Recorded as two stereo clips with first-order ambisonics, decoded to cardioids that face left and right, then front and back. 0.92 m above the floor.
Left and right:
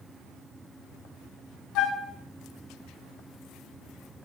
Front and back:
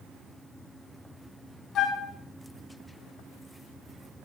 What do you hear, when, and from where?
1.8 s a flute: 55° left, 1.1 m